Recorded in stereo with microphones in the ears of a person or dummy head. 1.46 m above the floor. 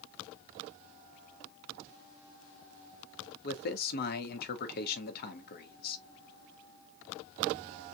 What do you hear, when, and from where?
3.4 s a man speaking: 50° left (ahead or behind), 1.1 m